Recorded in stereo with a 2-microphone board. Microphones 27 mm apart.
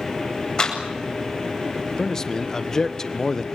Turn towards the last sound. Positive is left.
turn(degrees=20)  # may be behind; listen again after turning